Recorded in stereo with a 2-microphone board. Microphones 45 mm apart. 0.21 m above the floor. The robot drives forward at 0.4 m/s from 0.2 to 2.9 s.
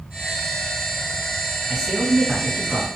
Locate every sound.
1.7 s a man speaking: 15° right (ahead or behind), 2.5 m; by 2.9 s 10° right (ahead or behind), 3 m